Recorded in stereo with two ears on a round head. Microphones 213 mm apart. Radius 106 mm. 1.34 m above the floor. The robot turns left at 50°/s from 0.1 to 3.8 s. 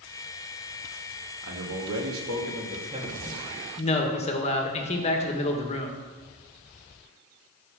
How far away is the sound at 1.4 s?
About 2.5 m.